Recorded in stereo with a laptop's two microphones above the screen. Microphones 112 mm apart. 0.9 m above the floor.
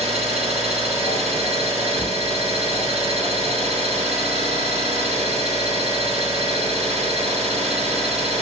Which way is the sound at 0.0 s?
70° right (ahead or behind).